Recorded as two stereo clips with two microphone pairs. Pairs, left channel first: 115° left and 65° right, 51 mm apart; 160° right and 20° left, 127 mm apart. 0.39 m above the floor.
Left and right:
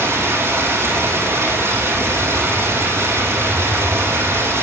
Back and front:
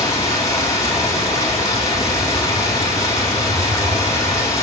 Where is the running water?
95° right, 10 m.